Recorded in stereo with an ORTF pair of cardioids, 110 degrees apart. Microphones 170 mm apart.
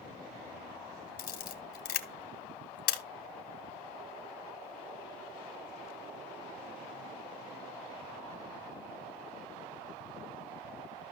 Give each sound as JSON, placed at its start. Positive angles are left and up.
{"t": 1.2, "sound": "a camera shutter", "azimuth_deg": 60, "distance_m": 1.5}